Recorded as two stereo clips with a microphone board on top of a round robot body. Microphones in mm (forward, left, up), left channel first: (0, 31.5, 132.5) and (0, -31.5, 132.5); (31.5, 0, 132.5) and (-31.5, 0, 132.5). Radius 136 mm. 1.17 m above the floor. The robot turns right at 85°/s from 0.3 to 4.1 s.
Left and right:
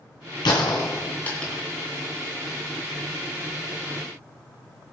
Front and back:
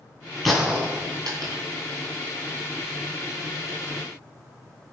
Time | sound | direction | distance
0.5 | a gunshot | 85° left | 2.5 m